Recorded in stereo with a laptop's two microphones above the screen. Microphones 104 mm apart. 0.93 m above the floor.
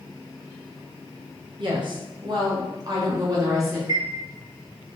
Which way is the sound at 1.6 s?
50° right (ahead or behind).